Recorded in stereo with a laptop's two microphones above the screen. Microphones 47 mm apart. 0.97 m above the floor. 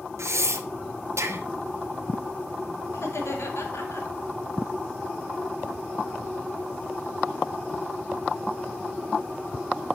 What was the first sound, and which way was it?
Breathing, 80° right.